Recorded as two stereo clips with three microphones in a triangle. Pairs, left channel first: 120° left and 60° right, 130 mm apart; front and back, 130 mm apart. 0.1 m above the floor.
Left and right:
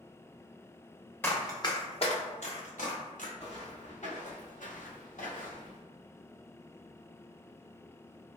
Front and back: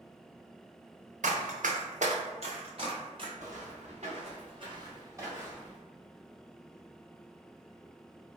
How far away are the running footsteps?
About 0.8 m.